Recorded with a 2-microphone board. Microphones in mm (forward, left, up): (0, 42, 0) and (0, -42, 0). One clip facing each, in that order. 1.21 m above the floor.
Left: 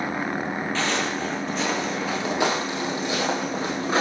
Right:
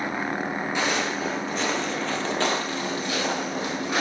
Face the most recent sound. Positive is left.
turn(degrees=30)  # may be behind; listen again after turning